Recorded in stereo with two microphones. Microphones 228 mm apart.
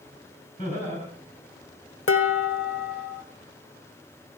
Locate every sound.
0.6 s laughter: 30° left (ahead or behind), 5 m
2.1 s dishes clattering: 65° left (ahead or behind), 1.1 m